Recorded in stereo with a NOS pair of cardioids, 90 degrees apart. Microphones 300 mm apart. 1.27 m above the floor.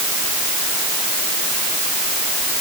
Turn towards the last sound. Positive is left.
No sound to turn to.